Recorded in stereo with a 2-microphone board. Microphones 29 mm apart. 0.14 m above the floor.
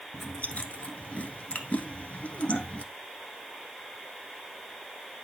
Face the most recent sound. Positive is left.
turn(degrees=55)  # may be behind; listen again after turning